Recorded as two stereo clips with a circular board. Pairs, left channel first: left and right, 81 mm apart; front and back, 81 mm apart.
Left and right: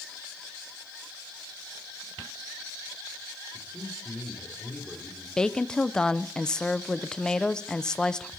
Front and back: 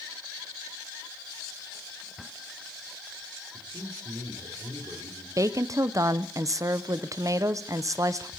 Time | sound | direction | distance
3.5 | a man speaking | 160° right | 3 m
5.4 | a woman speaking | 165° left | 0.6 m